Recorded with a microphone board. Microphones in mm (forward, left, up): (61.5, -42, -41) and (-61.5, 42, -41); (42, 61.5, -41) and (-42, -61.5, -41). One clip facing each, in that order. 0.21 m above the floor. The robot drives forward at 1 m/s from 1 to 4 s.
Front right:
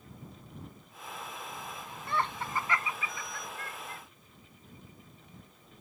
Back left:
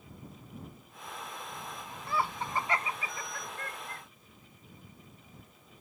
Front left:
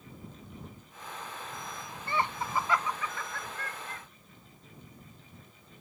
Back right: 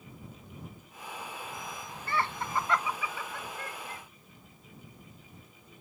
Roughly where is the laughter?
Ahead left.